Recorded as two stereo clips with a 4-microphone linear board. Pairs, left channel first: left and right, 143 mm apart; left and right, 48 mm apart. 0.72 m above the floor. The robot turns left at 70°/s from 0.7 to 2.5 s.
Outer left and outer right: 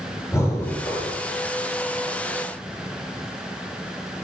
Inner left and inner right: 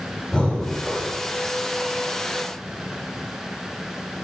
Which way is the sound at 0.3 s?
160° left.